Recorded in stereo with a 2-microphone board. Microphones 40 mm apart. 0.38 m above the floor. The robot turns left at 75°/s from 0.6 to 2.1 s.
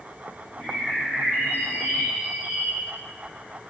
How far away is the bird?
About 2 m.